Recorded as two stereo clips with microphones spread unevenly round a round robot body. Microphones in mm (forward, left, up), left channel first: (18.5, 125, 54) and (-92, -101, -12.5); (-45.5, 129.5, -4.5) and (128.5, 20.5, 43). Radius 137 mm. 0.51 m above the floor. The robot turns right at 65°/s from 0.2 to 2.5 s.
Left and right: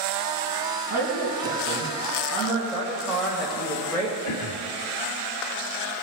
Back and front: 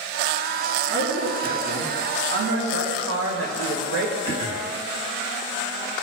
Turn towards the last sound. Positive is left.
turn(degrees=40)